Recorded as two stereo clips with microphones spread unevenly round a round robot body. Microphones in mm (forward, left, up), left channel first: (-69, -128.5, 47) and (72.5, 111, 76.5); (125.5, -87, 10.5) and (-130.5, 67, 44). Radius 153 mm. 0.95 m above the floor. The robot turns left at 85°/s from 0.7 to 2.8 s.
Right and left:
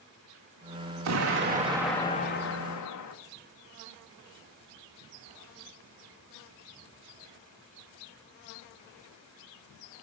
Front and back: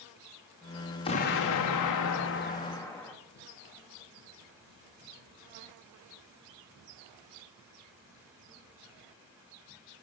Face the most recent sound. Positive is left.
turn(degrees=-110)